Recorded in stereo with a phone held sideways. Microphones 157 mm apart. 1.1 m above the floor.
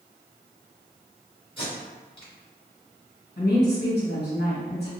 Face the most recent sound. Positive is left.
turn(degrees=75)  # may be behind; listen again after turning